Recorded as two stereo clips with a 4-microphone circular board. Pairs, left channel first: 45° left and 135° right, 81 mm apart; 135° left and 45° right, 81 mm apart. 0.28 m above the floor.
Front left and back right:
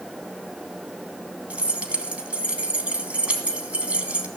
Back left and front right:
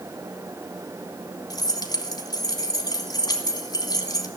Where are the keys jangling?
150° left, 1.9 m.